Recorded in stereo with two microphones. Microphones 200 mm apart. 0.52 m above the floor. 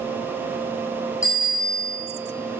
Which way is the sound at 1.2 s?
85° left.